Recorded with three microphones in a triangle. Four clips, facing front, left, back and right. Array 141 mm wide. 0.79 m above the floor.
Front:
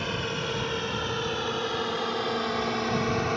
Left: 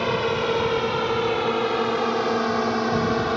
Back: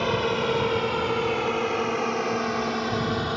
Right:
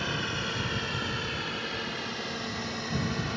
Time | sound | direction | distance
0.0 | a drone | 120° left | ?